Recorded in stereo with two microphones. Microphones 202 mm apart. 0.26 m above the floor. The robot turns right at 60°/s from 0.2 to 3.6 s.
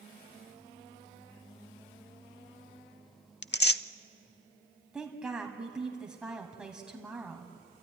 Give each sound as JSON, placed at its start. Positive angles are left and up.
{"t": 3.4, "sound": "tearing paper", "side_deg": 60, "distance_m": 0.5}
{"t": 4.9, "sound": "a woman speaking", "side_deg": -5, "distance_m": 1.9}